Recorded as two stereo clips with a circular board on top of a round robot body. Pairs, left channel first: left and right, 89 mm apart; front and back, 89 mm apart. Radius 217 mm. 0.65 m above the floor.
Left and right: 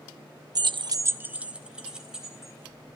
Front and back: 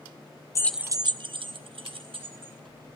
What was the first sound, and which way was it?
Keys jangling, 50° right.